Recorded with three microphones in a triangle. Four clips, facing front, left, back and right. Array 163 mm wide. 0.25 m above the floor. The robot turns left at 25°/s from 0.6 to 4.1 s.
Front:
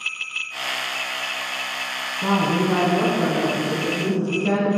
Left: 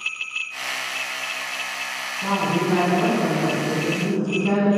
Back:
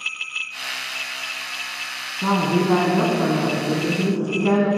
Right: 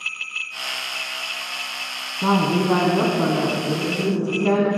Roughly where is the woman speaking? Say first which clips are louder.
Right 3 dB, back 1 dB; right.